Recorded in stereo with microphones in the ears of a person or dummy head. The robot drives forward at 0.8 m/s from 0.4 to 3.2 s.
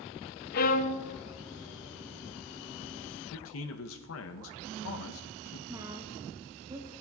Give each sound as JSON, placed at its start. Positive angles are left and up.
{"t": 0.5, "sound": "a violin", "side_deg": 45, "distance_m": 0.5}
{"t": 3.3, "sound": "a man speaking", "side_deg": 70, "distance_m": 0.8}
{"t": 5.7, "sound": "a woman speaking", "side_deg": -15, "distance_m": 1.0}